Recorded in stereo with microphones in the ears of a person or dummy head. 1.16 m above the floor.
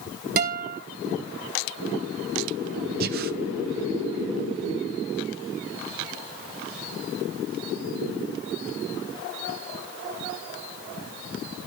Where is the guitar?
50° right (ahead or behind), 1.9 m.